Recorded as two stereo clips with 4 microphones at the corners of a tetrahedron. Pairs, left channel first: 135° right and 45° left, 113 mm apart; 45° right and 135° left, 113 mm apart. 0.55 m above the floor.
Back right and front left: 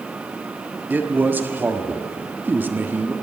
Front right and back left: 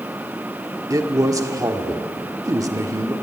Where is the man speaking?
105° left, 1.2 m.